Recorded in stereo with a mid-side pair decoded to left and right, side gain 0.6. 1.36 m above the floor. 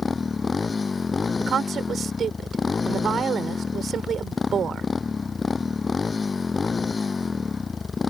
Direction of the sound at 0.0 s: 25° left.